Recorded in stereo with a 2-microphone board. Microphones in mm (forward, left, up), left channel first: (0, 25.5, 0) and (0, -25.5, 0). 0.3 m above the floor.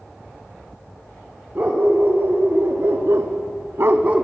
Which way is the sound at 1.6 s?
45° right (ahead or behind).